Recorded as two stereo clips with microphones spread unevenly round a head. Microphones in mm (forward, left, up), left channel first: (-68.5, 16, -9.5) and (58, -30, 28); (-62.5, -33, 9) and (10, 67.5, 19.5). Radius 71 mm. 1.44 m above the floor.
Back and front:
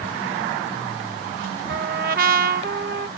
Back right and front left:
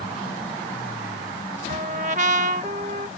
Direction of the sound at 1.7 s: 10° left.